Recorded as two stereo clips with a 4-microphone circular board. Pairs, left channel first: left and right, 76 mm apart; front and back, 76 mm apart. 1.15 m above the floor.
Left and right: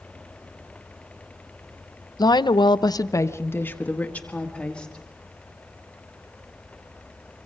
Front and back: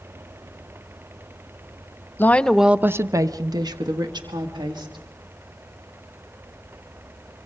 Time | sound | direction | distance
2.2 | a woman speaking | 60° left | 0.7 m